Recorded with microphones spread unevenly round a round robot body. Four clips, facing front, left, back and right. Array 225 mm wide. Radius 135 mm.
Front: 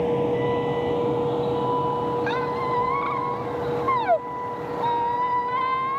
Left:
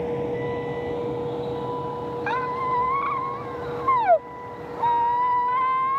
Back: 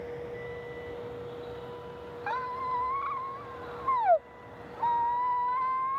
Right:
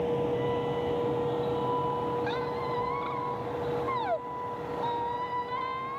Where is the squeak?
60° left.